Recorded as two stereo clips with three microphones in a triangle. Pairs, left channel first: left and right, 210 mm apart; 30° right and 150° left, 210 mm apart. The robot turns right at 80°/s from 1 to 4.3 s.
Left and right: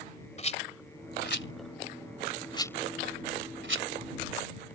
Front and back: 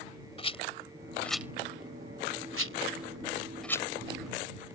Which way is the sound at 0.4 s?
30° left.